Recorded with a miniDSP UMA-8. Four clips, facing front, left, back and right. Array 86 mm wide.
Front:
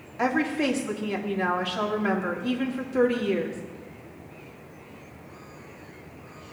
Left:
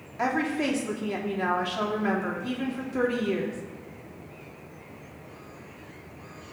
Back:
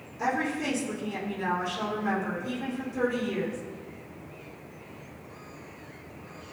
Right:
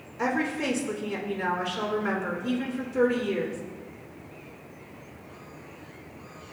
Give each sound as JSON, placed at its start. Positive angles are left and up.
{"t": 0.2, "sound": "a woman speaking", "azimuth_deg": 30, "distance_m": 2.5}